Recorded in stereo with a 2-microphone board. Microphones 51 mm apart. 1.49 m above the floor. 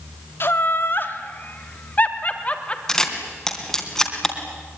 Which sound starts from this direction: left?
Laughter, at 0.4 s.